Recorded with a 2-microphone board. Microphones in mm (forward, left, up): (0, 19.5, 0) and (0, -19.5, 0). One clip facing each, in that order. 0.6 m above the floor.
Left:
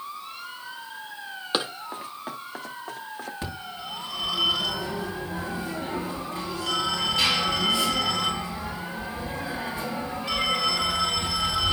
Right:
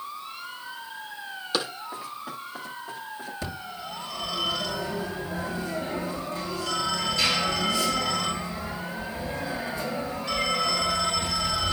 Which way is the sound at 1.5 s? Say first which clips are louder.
Left 1 dB; 30° left (ahead or behind).